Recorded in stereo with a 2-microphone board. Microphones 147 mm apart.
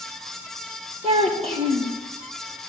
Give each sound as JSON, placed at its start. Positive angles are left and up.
{"t": 1.0, "sound": "a child speaking", "side_deg": -45, "distance_m": 4.0}